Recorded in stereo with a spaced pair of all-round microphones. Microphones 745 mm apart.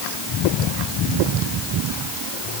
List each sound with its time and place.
Only background noise.